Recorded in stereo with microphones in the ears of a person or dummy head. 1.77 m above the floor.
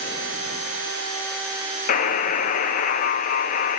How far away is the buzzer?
About 1.0 m.